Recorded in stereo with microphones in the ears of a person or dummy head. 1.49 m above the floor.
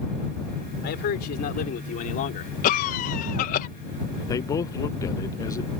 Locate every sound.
0.8 s a man speaking: 55° left (ahead or behind); by 2.5 s 40° left (ahead or behind)
2.6 s a cough: 55° left (ahead or behind)
4.3 s a man speaking: 20° left (ahead or behind)